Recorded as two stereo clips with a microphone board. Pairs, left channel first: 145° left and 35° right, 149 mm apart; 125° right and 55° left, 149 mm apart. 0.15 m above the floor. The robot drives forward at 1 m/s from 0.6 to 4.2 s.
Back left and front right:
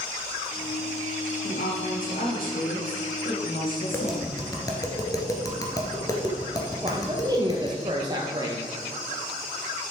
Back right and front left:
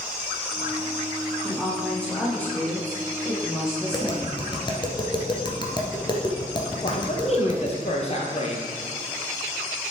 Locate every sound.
1.4 s a woman speaking: 150° left, 3.5 m; by 4.4 s 165° left, 6 m
3.9 s tapping: 155° right, 1.5 m; by 7.8 s 160° right, 1.6 m
6.8 s a man speaking: 90° right, 1.9 m